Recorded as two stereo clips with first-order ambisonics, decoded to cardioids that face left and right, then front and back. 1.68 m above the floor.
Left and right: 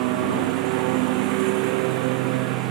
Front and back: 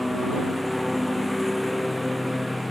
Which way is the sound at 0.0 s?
90° right.